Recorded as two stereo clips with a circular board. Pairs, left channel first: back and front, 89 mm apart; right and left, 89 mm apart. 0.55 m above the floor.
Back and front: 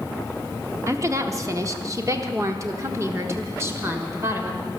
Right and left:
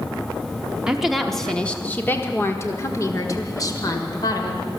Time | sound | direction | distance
0.9 | a woman speaking | 15° left | 1.0 m